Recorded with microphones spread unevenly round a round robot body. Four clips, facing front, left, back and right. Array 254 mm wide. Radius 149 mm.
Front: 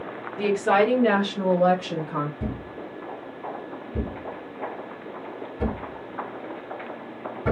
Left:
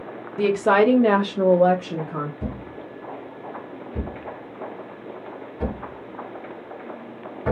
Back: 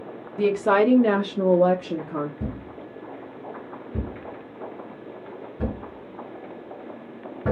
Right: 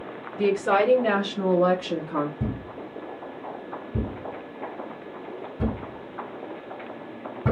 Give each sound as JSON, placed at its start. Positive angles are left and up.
{"t": 0.4, "sound": "a woman speaking", "azimuth_deg": 120, "distance_m": 1.1}
{"t": 2.4, "sound": "a thud", "azimuth_deg": -145, "distance_m": 2.5}